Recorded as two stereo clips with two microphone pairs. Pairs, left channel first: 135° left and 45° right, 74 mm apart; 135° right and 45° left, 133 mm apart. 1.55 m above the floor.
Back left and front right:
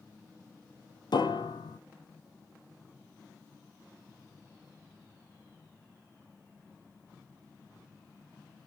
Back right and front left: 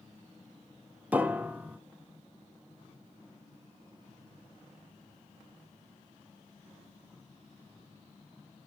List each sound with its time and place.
1.1 s a piano: 125° left, 0.7 m